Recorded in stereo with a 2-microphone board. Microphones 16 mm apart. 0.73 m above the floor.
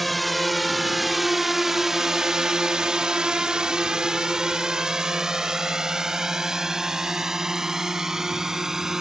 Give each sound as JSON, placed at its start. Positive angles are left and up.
{"t": 0.0, "sound": "a drone", "side_deg": 0}